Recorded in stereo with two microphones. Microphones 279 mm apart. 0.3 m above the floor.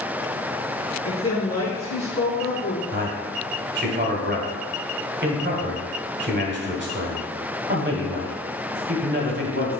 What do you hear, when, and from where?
1.1 s a woman speaking: 65° left (ahead or behind), 2 m
2.9 s a man speaking: 40° right (ahead or behind), 1.4 m